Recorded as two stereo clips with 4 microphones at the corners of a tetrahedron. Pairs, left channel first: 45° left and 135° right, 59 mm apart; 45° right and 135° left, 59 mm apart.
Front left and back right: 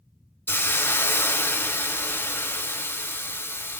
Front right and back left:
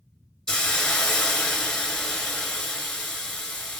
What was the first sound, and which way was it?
A hiss, 30° left.